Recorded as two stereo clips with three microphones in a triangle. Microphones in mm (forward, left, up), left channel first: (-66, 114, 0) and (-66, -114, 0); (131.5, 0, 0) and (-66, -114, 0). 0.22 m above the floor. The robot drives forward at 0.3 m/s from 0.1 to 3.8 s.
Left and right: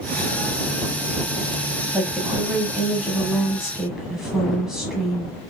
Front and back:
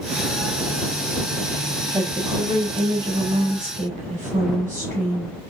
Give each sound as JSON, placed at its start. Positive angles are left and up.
{"t": 1.9, "sound": "a woman speaking", "azimuth_deg": -175, "distance_m": 1.0}